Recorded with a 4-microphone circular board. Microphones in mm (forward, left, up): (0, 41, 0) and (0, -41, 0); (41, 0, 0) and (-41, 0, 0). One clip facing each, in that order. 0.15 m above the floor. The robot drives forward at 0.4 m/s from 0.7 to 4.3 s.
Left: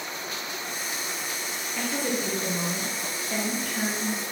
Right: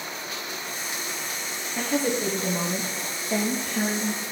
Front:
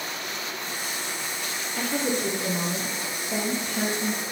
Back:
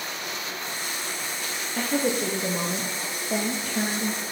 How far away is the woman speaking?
About 2.5 m.